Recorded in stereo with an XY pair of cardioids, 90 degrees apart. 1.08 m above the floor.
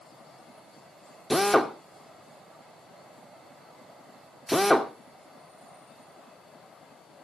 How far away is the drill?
About 2.5 m.